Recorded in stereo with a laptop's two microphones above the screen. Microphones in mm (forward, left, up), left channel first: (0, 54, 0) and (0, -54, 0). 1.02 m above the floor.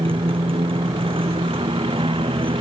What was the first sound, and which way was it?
A motorcycle, 55° right (ahead or behind).